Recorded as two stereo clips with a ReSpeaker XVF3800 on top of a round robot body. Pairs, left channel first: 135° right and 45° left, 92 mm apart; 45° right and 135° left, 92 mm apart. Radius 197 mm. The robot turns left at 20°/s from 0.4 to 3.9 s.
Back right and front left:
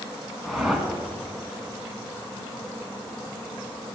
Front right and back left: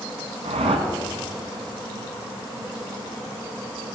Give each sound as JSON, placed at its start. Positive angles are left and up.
{"t": 0.4, "sound": "a whoosh", "azimuth_deg": 135, "distance_m": 1.8}